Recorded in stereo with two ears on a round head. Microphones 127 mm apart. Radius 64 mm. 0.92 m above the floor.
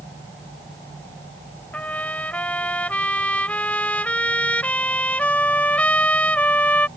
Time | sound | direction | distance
1.7 | a trumpet | 10° left (ahead or behind) | ?